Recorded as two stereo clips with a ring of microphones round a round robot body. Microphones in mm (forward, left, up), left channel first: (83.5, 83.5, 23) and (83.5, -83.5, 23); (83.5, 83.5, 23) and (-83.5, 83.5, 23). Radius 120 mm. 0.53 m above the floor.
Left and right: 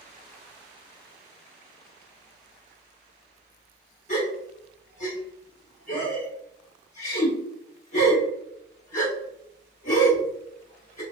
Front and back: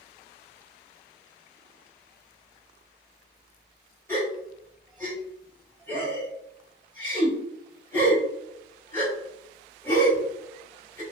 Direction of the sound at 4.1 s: 70° left.